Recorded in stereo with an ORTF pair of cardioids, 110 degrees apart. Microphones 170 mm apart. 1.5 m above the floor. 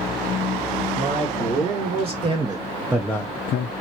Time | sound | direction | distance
0.9 | a man speaking | 45° right | 2.5 m